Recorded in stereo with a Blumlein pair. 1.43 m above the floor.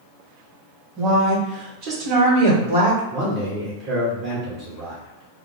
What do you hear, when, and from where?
1.0 s a woman speaking: 30° right, 2.0 m; by 3.0 s 65° right, 1.5 m
3.1 s a man speaking: 35° right, 1.3 m